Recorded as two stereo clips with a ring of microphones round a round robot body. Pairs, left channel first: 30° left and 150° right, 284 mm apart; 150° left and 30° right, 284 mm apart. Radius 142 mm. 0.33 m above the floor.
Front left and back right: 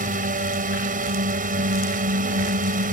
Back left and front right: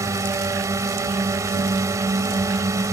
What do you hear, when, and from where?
0.0 s a drone: 105° right